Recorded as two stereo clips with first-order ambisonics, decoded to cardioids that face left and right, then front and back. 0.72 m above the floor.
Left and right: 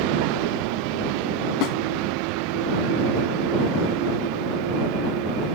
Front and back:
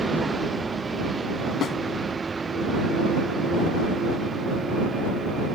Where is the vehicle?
105° right.